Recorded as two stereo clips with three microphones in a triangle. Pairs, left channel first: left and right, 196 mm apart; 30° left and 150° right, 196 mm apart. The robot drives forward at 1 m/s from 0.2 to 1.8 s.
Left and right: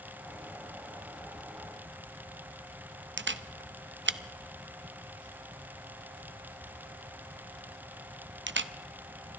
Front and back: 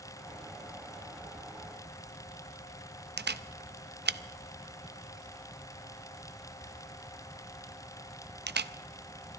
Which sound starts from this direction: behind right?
A camera shutter, at 3.2 s.